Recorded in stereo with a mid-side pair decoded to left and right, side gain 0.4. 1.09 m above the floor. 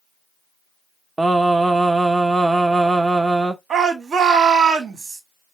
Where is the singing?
25° right, 0.8 m.